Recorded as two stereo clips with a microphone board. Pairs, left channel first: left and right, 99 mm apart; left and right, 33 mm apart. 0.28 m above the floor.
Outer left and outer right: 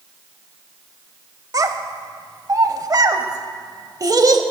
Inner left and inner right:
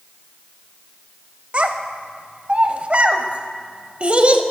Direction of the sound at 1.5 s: 40° right (ahead or behind).